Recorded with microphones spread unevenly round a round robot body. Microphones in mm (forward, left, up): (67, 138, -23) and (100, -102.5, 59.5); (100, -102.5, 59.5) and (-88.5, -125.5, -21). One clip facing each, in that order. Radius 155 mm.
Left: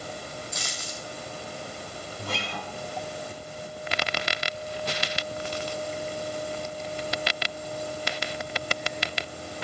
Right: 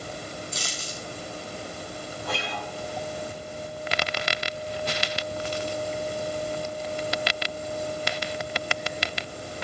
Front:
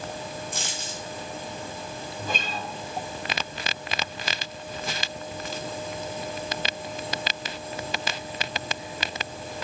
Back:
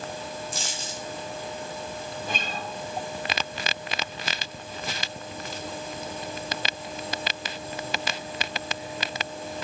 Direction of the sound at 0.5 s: 25° right.